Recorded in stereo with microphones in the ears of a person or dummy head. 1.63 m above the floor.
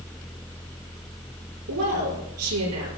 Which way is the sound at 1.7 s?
85° right.